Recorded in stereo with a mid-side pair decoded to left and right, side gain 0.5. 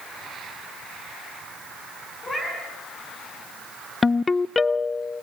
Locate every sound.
2.2 s a cat meowing: 20° left, 6.5 m
4.0 s a ringtone: 25° left, 0.6 m